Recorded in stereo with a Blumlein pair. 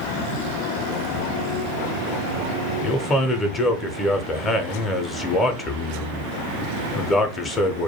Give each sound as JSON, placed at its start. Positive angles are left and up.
{"t": 2.8, "sound": "a man speaking", "azimuth_deg": 15, "distance_m": 0.6}